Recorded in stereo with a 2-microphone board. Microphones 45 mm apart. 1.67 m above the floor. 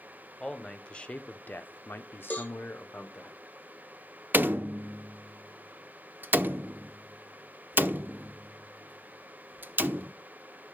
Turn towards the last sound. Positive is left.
turn(degrees=-50)  # may be behind; listen again after turning